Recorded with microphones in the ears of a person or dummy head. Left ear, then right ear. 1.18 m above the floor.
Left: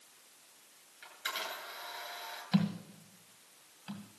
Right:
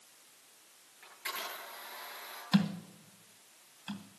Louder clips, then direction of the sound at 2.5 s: Right 3 dB; 10° right (ahead or behind).